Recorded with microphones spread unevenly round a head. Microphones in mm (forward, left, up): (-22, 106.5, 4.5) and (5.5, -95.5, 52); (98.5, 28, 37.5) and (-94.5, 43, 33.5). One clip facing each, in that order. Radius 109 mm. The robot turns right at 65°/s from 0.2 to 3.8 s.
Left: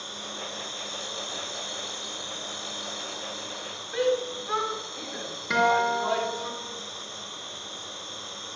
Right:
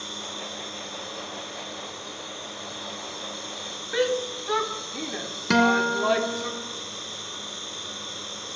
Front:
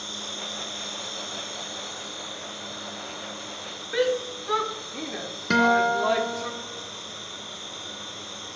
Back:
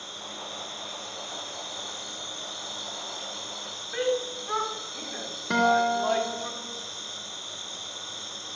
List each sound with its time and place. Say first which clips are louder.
0.0 s an insect: right 2 dB, front 3 dB; 15° right, 8.5 m; by 8.6 s 140° right, 8.5 m
3.9 s a shout: even, front 3 dB; 55° right, 3 m
5.5 s a guitar: right 4 dB, front 2 dB; 70° right, 2.5 m